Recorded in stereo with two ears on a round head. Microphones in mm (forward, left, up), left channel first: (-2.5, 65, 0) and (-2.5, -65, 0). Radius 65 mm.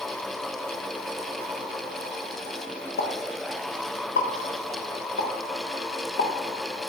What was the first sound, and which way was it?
A pop, 75° left (ahead or behind).